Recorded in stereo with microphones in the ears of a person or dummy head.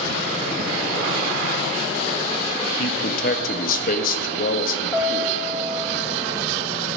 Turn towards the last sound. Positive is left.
turn(degrees=5)  # may be behind; listen again after turning